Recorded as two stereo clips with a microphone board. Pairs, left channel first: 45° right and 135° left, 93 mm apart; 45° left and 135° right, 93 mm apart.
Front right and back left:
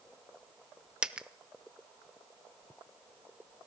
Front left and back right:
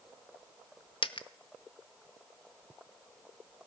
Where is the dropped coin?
55° left, 0.7 m.